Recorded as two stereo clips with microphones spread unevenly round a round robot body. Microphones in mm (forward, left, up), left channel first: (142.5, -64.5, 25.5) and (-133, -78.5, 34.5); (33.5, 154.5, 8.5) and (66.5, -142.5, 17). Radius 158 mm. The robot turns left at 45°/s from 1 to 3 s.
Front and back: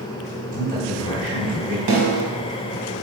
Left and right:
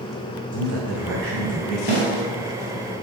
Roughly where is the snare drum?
Behind.